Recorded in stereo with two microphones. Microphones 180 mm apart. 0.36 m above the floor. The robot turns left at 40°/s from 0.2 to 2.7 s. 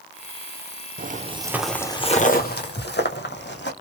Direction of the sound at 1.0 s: 55° right (ahead or behind).